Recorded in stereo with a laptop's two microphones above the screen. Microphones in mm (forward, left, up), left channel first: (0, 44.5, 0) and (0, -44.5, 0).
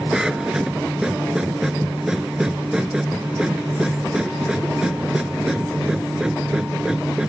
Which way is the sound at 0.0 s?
10° right (ahead or behind).